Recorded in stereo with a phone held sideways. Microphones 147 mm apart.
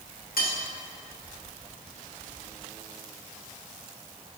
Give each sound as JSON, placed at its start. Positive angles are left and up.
{"t": 0.4, "sound": "cutlery clinking", "side_deg": 75, "distance_m": 1.1}